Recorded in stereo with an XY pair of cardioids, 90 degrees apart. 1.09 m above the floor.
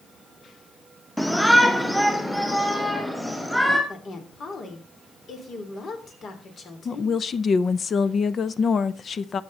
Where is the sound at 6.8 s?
50° left, 0.7 m.